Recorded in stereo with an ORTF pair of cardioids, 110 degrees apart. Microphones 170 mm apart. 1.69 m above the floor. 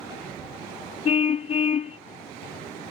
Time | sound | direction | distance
1.1 | a car horn | 40° left | ?